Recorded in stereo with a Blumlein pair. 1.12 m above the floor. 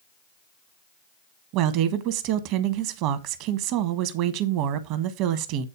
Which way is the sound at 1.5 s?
40° right.